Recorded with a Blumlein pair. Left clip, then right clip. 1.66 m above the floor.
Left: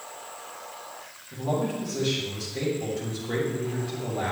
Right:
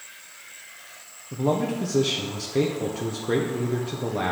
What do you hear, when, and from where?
1.3 s a man speaking: 60° right, 0.9 m